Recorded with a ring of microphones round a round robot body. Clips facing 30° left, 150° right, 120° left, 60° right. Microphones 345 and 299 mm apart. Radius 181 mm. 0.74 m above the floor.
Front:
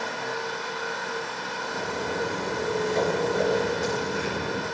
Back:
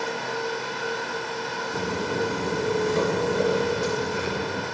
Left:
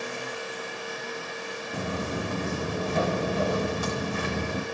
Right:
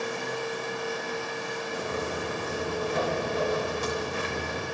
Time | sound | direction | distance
1.7 | footsteps | 145° left | 4 m